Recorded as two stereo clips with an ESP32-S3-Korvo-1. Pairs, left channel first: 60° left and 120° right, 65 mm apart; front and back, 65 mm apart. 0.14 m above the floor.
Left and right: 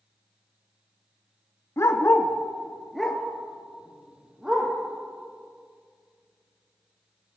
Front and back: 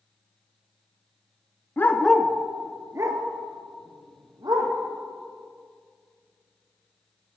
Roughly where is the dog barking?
Ahead left.